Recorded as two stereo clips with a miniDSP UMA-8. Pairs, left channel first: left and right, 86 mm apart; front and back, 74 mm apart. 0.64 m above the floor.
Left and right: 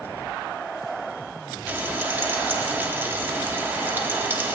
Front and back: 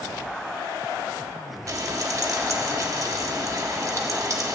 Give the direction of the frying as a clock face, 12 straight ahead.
5 o'clock.